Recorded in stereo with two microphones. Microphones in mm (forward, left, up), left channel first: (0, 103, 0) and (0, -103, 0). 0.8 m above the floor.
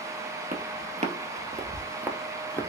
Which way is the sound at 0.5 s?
45° right (ahead or behind).